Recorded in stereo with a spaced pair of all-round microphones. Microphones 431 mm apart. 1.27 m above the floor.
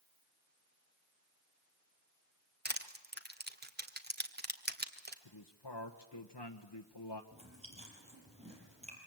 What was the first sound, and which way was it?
Crushing, 25° right (ahead or behind).